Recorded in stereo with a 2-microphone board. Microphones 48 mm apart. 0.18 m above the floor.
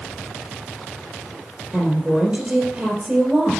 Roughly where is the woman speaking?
Centre.